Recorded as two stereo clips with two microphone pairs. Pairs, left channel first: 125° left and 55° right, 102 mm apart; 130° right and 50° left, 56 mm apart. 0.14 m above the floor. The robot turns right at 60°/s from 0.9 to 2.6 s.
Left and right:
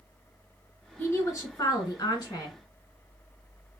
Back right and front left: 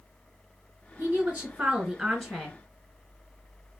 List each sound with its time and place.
1.0 s a woman speaking: 65° left, 2 m; by 2.6 s 160° left, 2 m